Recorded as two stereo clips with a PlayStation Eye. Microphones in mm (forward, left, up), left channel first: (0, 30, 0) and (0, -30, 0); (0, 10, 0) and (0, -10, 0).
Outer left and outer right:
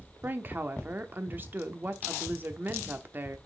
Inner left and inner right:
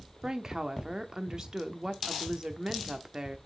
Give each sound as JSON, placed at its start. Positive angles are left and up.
{"t": 0.2, "sound": "a woman speaking", "side_deg": -30, "distance_m": 0.9}